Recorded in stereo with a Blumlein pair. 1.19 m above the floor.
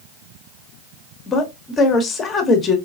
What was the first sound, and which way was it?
A woman speaking, 20° left.